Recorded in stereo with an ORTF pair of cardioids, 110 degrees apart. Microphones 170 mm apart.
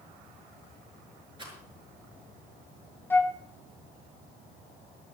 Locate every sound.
1.4 s a rattle: 30° right, 6 m
3.1 s a flute: 10° left, 0.8 m